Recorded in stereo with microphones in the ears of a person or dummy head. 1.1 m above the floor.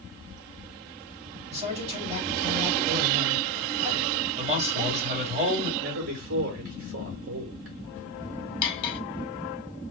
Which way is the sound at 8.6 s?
25° left (ahead or behind).